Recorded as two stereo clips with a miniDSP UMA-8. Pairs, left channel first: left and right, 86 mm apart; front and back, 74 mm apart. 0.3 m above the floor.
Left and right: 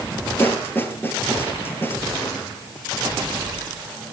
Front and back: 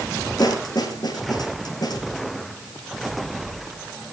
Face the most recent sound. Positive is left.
turn(degrees=25)